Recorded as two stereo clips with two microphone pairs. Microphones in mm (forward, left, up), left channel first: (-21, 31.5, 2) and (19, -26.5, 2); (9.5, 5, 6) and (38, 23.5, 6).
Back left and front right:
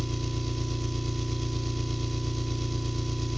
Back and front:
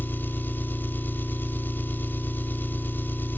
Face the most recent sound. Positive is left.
turn(degrees=-145)